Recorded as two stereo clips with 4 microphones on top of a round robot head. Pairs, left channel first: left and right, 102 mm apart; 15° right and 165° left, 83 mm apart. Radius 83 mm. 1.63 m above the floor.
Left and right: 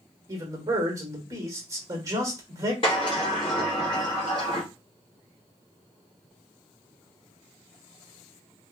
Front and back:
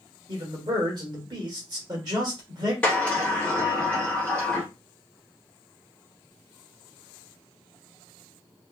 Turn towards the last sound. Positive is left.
turn(degrees=50)